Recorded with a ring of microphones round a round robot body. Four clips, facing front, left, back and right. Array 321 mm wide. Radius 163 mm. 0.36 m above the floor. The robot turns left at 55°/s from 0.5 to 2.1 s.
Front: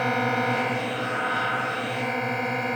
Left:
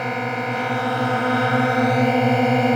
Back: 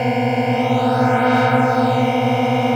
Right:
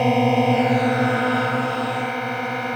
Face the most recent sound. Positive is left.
turn(degrees=140)